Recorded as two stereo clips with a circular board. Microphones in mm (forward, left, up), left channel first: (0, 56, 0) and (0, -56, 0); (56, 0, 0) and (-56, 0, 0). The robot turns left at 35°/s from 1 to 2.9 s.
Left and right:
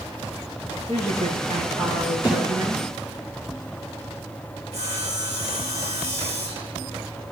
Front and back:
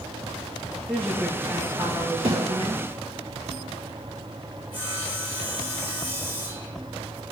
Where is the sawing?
110° right, 4 m.